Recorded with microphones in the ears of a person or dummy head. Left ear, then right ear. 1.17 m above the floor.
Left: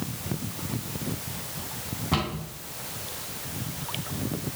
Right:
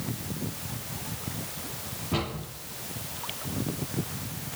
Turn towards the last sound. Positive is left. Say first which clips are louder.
# left 3 dB
turn(degrees=75)  # may be behind; listen again after turning